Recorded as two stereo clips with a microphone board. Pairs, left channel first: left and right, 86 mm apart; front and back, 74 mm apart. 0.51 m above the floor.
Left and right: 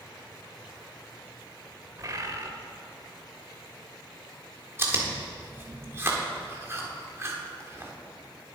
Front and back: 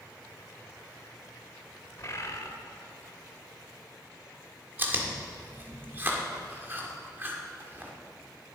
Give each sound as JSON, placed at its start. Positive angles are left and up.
{"t": 2.0, "sound": "a bird", "azimuth_deg": -45, "distance_m": 1.1}
{"t": 4.8, "sound": "chewing", "azimuth_deg": -135, "distance_m": 1.6}